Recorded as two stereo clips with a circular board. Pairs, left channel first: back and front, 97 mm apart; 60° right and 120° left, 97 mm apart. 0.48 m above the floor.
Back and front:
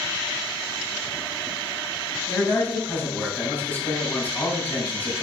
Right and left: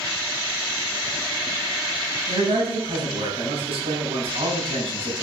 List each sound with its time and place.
2.3 s a man speaking: 110° left, 4 m